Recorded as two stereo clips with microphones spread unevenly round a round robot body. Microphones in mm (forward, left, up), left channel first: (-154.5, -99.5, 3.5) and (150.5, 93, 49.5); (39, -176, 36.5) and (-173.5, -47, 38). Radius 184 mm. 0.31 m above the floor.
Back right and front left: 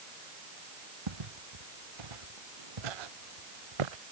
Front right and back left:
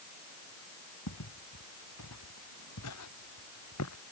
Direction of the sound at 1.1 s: 10° left.